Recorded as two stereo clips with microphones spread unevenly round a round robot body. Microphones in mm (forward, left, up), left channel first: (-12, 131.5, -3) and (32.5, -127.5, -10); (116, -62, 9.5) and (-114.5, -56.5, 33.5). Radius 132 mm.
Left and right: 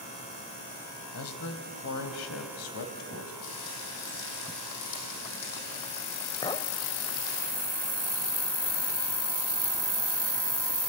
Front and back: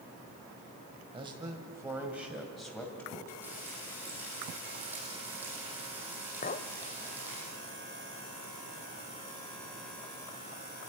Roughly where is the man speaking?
Left.